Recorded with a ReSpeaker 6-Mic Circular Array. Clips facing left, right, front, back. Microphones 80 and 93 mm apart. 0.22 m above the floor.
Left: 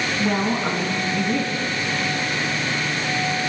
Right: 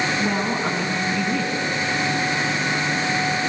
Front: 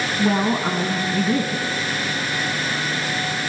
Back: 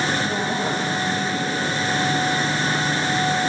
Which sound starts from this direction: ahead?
A woman speaking, at 0.2 s.